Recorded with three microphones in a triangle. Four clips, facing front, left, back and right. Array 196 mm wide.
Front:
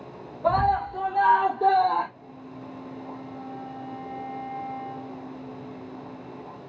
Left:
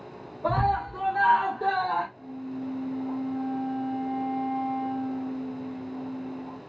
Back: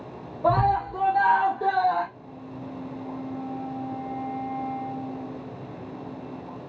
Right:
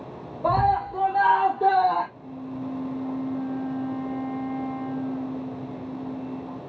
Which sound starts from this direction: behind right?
A scream, at 0.4 s.